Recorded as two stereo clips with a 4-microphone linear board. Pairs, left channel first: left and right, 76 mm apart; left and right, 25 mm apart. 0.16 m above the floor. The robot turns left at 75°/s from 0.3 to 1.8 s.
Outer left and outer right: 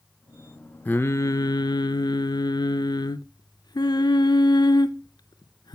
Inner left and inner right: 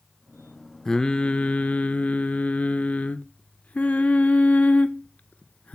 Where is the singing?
155° left, 0.6 m; by 5.8 s 85° left, 0.6 m.